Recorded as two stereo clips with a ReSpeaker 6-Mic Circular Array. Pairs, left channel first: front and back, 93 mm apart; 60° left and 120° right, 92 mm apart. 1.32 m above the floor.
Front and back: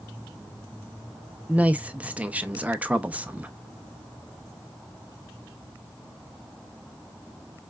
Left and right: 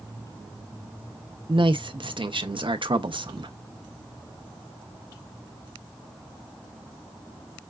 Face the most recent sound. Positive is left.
turn(degrees=-105)